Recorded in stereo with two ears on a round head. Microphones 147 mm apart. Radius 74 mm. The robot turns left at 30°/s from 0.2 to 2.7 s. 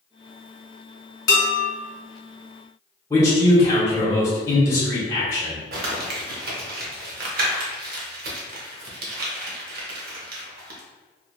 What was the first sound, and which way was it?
Dishes clattering, 55° left (ahead or behind).